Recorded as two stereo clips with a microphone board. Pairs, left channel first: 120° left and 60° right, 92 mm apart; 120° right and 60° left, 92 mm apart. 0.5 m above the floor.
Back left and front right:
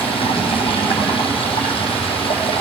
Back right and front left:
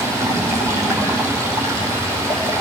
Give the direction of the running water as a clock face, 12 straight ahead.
8 o'clock.